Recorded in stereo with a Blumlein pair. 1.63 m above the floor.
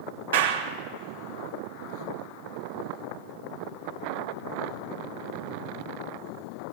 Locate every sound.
0.3 s a clap: 60° right, 4 m